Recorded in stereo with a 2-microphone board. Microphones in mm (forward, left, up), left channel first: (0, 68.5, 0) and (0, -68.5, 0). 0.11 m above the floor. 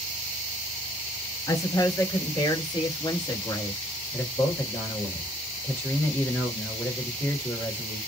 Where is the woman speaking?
25° left (ahead or behind), 2 m; by 3.8 s 30° left (ahead or behind), 1.8 m.